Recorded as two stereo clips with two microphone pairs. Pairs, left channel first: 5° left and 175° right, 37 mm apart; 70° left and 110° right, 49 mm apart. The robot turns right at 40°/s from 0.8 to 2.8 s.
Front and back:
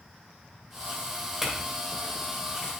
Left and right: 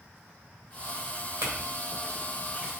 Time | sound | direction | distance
1.4 | a clink | 90° right | 2.5 m